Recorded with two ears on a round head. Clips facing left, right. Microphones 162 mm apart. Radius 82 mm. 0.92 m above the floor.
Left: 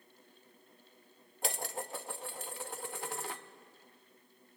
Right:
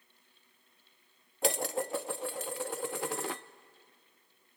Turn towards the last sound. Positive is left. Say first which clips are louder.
# right 8 dB
turn(degrees=-55)  # may be behind; listen again after turning